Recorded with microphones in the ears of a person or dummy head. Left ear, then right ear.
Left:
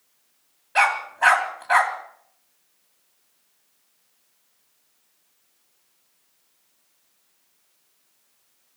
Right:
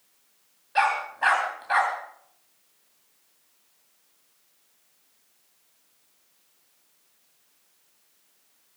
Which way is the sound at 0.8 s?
25° left (ahead or behind).